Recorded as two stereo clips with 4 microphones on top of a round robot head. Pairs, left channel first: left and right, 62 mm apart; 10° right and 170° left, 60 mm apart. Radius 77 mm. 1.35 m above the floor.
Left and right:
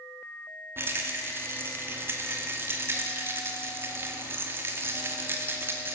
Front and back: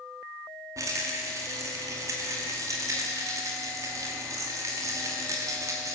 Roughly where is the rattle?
Behind right.